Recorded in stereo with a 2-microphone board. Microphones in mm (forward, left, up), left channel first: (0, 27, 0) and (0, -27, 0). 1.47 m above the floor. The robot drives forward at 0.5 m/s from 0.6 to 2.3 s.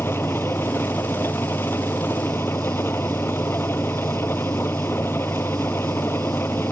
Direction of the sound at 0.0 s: 45° left (ahead or behind).